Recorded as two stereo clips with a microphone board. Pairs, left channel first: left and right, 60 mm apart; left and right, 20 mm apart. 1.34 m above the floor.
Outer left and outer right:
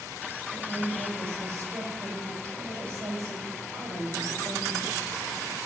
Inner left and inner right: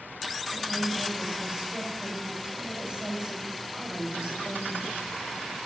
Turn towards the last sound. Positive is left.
turn(degrees=-55)  # may be behind; listen again after turning